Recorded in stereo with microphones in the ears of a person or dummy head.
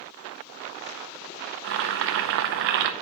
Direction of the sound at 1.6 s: 50° right (ahead or behind).